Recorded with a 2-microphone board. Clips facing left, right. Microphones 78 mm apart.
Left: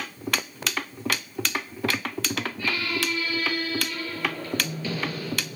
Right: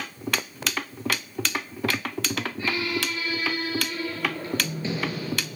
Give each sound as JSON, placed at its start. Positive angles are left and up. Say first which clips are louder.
{"t": 2.6, "sound": "a squeak", "louder": "right 1 dB", "side_deg": -25, "distance_m": 7.5}